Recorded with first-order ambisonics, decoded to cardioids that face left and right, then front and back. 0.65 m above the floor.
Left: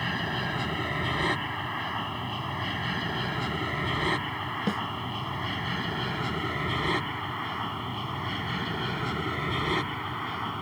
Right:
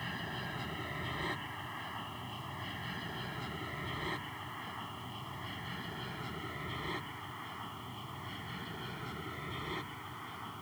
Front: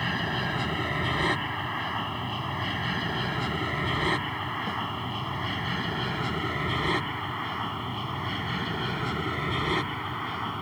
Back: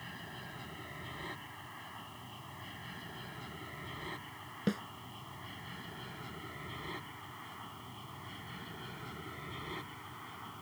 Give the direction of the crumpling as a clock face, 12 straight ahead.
I don't hear crumpling.